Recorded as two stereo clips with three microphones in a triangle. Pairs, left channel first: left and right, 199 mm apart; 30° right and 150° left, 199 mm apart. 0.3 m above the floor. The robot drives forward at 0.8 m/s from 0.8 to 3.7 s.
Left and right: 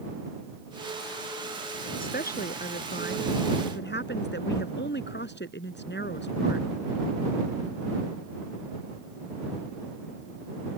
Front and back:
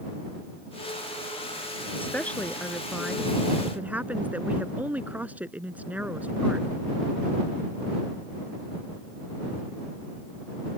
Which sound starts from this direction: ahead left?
A woman speaking, at 2.0 s.